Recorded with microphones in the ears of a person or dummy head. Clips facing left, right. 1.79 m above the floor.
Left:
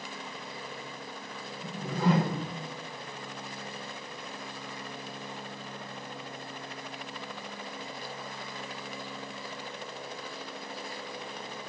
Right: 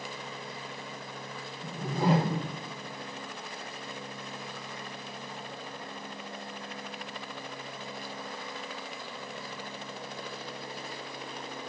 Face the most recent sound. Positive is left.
turn(degrees=-25)  # may be behind; listen again after turning